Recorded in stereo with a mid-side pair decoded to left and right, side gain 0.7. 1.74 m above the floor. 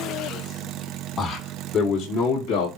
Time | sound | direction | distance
1.2 | a man speaking | 35° left | 2.0 m